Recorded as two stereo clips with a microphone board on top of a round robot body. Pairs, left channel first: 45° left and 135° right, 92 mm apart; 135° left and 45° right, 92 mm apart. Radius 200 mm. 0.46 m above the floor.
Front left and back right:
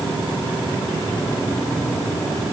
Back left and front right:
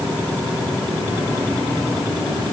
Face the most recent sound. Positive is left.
No sound to turn to.